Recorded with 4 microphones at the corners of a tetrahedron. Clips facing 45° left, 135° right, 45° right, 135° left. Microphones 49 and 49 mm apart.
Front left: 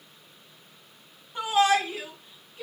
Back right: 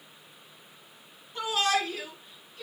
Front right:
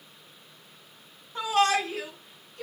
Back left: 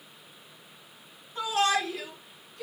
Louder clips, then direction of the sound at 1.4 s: Front left 5 dB, front right 2 dB; 25° right.